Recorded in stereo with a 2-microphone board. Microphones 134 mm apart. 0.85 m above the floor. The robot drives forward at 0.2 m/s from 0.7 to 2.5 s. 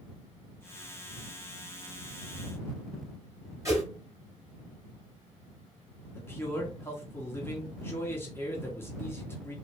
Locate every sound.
3.6 s a whoosh: 25° right (ahead or behind), 1.8 m
6.2 s a man speaking: 15° left (ahead or behind), 1.1 m